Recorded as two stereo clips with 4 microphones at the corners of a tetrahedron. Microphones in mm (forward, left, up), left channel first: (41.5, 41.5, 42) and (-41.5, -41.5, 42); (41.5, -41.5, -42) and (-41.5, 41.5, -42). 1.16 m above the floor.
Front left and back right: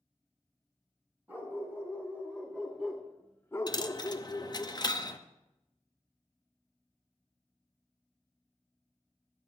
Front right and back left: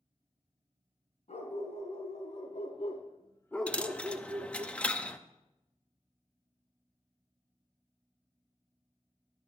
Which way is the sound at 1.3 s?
60° right.